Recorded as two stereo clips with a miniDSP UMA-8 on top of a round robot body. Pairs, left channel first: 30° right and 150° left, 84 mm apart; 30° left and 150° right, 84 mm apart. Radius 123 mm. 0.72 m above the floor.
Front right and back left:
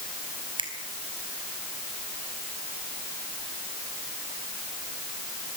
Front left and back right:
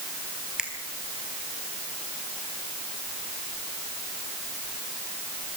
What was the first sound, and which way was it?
A finger snap, 130° left.